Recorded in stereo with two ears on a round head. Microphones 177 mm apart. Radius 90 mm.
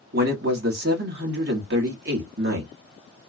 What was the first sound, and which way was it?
A man speaking, 50° right (ahead or behind).